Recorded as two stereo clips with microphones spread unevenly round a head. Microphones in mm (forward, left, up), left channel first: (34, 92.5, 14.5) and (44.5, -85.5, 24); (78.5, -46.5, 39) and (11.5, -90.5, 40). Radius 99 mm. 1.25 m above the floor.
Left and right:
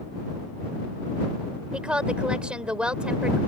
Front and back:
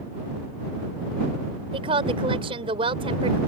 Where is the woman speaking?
170° right.